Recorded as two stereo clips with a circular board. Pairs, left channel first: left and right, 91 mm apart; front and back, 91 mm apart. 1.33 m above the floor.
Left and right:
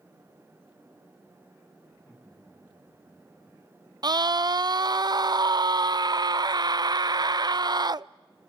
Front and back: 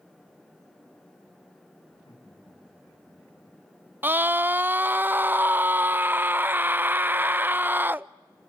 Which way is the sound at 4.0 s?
115° right.